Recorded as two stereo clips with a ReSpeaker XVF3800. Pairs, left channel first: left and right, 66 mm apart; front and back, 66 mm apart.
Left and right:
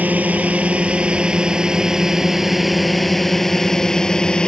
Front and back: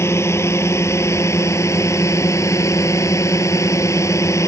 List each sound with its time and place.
0.0 s a drone: 30° right; by 4.5 s 15° left